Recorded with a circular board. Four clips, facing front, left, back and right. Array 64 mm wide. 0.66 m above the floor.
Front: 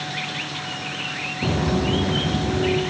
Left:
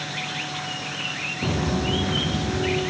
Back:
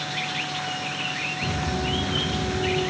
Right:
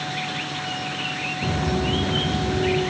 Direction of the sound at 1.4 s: 25° left.